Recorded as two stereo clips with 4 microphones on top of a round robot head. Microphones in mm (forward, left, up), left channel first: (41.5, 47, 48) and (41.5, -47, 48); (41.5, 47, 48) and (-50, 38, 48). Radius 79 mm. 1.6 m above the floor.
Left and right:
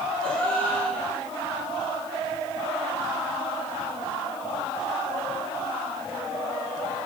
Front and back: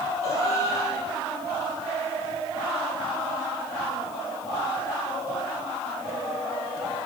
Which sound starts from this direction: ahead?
A gasp, at 0.2 s.